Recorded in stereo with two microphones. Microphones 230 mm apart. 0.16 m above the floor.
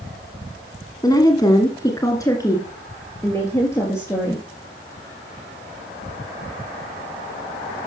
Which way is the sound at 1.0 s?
15° left (ahead or behind).